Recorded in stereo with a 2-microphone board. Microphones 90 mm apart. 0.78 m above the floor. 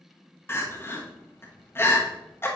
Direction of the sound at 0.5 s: 25° left (ahead or behind).